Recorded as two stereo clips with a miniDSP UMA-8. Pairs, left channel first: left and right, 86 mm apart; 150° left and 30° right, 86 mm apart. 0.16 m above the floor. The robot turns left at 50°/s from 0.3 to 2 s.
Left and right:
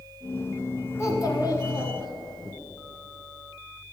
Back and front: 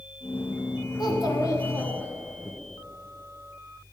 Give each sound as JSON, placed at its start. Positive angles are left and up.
{"t": 1.0, "sound": "a child speaking", "azimuth_deg": 140, "distance_m": 1.3}